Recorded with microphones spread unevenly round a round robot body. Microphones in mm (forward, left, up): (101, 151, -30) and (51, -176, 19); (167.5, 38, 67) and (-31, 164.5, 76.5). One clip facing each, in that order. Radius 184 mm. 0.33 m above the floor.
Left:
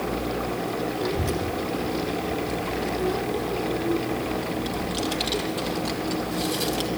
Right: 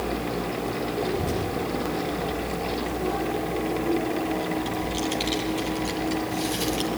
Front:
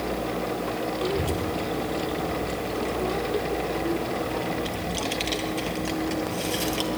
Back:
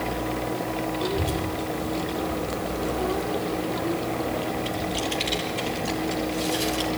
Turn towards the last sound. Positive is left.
turn(degrees=-15)